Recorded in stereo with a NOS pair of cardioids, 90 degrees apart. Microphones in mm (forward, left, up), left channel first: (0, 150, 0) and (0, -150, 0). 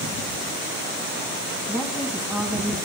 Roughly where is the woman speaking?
Ahead.